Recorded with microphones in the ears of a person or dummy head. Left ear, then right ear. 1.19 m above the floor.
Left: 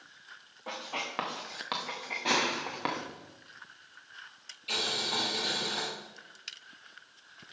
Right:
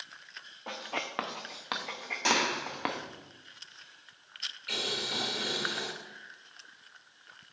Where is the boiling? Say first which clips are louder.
Left 2 dB; 5° right (ahead or behind), 3.5 m.